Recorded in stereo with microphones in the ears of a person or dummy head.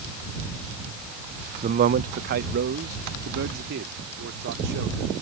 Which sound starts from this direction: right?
A man speaking, at 1.6 s.